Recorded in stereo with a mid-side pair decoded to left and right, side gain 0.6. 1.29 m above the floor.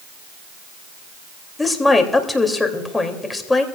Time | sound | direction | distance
1.6 | a woman speaking | 15° left | 3 m